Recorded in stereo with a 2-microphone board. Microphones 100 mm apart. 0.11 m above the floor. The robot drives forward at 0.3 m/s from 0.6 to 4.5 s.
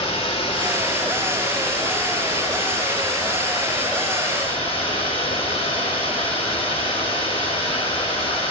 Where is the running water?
80° left, 2 m; by 8.5 s 65° left (ahead or behind), 2.5 m.